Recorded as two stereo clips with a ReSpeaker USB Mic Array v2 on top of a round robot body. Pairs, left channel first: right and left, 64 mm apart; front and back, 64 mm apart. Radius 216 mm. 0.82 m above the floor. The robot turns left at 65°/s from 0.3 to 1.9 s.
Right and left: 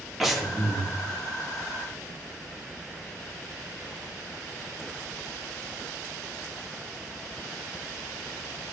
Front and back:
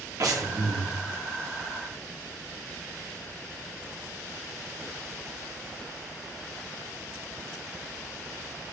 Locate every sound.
0.2 s breathing: straight behind, 2 m; by 0.9 s 135° left, 2 m